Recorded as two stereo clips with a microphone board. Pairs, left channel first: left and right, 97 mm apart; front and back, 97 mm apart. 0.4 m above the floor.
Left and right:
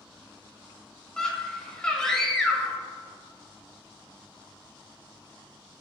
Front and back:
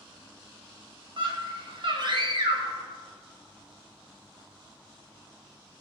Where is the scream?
170° left, 2 m.